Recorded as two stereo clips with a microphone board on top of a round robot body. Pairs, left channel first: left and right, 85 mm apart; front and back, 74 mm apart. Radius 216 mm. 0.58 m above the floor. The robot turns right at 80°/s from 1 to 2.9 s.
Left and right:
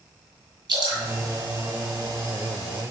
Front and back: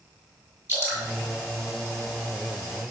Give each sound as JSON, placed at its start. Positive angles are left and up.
{"t": 0.7, "sound": "dripping", "azimuth_deg": -125, "distance_m": 7.0}